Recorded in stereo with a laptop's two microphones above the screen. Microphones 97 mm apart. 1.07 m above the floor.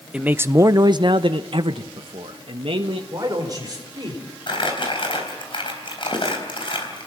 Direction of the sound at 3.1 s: 40° right (ahead or behind).